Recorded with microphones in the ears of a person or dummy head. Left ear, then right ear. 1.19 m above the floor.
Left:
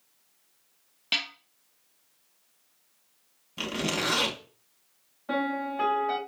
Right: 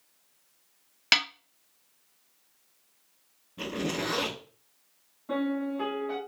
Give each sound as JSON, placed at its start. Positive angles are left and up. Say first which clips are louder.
{"t": 1.1, "sound": "a snare drum", "louder": "right 5 dB", "side_deg": -60, "distance_m": 0.8}
{"t": 3.6, "sound": "a zipper", "louder": "left 3 dB", "side_deg": 70, "distance_m": 3.0}
{"t": 5.3, "sound": "a piano", "louder": "left 2 dB", "side_deg": 65, "distance_m": 2.5}